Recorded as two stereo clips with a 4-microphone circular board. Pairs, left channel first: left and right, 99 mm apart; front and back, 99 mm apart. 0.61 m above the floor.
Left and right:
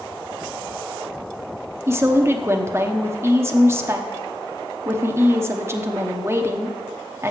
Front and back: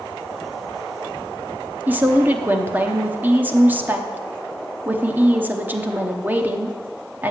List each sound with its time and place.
1.9 s a woman speaking: 125° right, 0.8 m